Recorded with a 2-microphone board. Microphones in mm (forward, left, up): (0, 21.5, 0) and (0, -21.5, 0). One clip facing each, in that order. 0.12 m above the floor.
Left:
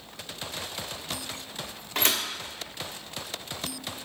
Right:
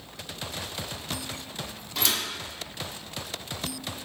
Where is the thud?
50° left (ahead or behind), 0.7 m.